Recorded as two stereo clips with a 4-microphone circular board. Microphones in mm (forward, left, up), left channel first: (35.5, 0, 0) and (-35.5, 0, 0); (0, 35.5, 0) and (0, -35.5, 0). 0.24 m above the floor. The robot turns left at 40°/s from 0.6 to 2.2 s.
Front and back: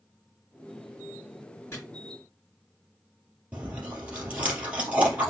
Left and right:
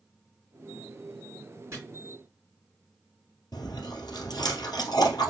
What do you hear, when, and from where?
1.7 s chopping: 40° right, 3.5 m
3.5 s chewing: 110° left, 2.5 m